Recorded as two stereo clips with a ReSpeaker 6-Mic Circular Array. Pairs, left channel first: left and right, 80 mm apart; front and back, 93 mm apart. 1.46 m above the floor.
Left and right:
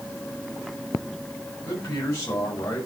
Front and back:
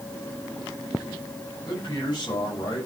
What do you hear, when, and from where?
1.6 s a man speaking: 40° left, 8.5 m; by 2.9 s 35° left, 8 m